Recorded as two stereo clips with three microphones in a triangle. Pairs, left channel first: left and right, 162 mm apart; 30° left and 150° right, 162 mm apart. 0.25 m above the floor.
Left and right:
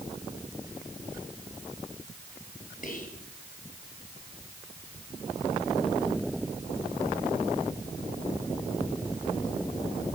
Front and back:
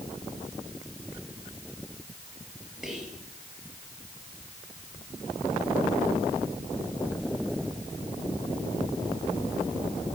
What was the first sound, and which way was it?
Whispering, 125° left.